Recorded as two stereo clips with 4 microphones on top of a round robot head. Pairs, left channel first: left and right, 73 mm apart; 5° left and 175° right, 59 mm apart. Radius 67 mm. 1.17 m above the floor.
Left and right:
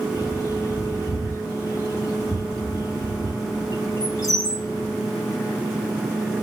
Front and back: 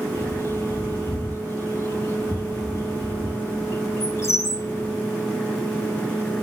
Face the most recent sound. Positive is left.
turn(degrees=50)